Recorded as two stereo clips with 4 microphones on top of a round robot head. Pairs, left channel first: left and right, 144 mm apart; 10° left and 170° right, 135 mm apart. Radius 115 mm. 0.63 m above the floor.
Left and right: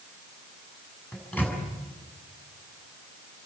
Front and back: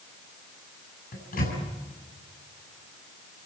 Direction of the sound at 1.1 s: 10° left.